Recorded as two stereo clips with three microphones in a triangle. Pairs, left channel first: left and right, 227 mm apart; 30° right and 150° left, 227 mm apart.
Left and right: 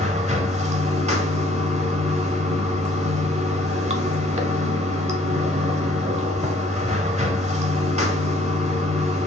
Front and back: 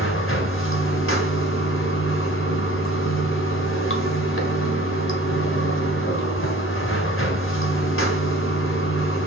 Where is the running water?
30° right, 0.8 m.